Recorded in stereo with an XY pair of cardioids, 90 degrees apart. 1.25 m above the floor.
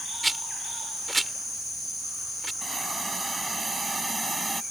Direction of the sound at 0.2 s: 20° right.